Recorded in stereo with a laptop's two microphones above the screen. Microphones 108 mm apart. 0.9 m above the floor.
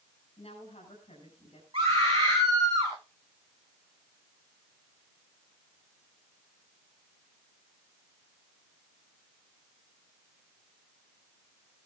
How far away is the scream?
About 6 m.